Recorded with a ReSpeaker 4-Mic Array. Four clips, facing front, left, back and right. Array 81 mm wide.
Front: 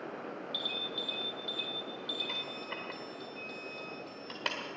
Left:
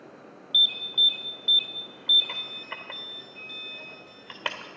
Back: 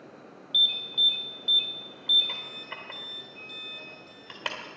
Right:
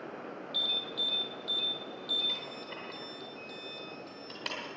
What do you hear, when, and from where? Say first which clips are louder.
0.5 s an alarm: left 4 dB, back 2 dB; 100° left, 1.3 m